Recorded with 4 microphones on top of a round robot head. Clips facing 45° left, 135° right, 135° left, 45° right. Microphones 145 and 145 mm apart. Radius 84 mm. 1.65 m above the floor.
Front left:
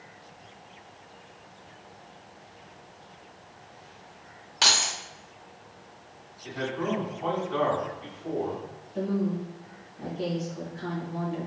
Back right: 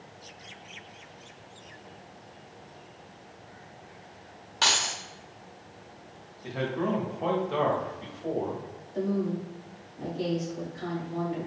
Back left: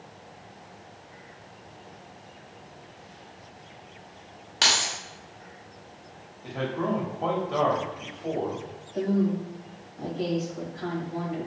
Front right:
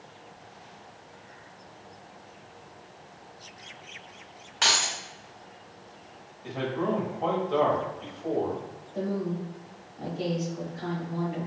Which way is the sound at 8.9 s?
120° right.